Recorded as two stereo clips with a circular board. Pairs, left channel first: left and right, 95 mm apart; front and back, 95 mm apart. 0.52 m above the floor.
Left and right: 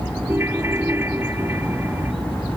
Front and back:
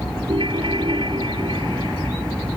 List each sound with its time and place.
0.3 s a ringtone: 155° right